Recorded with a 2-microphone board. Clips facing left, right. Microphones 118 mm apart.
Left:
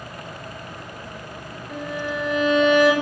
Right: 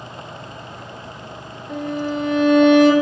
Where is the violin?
5° left (ahead or behind), 1.3 m.